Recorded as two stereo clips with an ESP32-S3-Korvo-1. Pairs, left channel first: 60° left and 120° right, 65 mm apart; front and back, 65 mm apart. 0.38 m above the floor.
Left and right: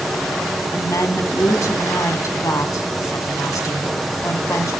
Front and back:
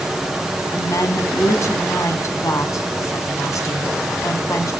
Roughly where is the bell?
No bell in this recording.